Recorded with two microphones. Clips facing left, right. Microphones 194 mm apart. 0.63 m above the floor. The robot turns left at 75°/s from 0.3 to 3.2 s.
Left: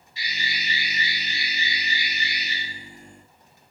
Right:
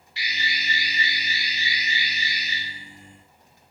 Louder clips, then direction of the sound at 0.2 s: Right 1 dB; 95° right.